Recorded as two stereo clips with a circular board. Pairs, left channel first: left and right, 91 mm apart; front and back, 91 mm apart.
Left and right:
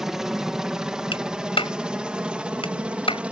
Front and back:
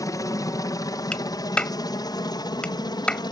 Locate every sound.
0.0 s a helicopter: 10° right; by 3.3 s 15° right
1.1 s a clap: 80° left